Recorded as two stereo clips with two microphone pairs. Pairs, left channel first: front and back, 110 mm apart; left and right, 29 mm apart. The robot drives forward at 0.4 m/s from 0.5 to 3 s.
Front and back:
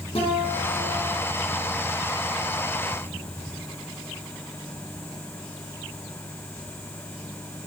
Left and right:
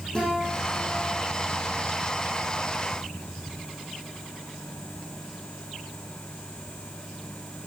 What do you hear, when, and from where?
0.1 s a guitar: 25° left, 7.5 m; by 1.2 s 30° left, 7 m